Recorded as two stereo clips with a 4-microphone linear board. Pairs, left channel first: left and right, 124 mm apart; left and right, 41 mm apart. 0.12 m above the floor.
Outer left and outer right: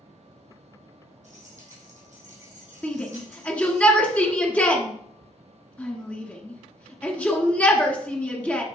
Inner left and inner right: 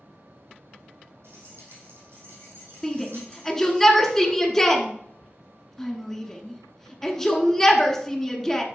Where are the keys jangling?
75° right (ahead or behind), 3.5 m.